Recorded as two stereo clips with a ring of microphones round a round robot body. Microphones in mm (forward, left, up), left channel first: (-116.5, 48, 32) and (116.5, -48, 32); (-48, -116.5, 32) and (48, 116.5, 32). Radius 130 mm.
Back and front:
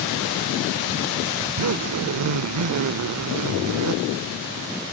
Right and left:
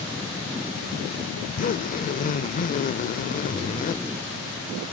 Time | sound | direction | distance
1.4 | a zipper | 50° right | ?